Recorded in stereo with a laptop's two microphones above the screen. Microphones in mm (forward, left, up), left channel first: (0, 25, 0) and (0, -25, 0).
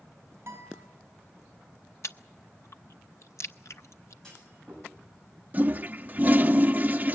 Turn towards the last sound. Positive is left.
turn(degrees=-35)  # may be behind; listen again after turning